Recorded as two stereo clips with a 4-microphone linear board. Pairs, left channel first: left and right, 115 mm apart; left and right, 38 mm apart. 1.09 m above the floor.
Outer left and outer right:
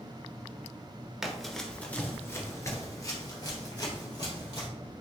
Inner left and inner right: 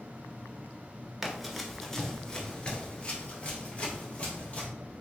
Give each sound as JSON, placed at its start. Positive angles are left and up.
{"t": 1.2, "sound": "running footsteps", "side_deg": -5, "distance_m": 1.1}